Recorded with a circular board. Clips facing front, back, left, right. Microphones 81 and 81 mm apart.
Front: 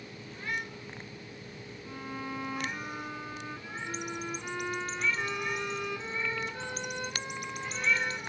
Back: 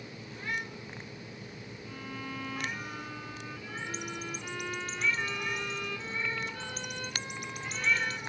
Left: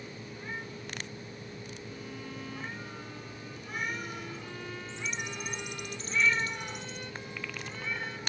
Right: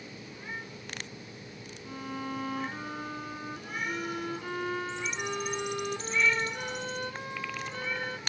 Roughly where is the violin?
Right.